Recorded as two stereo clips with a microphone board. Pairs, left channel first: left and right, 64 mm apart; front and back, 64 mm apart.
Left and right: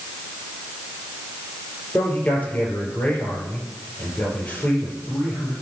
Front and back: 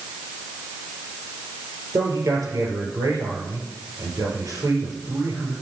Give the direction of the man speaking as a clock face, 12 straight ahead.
7 o'clock.